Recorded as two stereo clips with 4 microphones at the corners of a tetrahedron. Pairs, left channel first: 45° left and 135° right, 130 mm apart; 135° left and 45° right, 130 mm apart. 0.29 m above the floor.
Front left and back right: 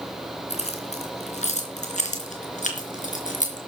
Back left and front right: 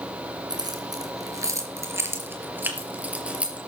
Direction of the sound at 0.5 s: 10° left.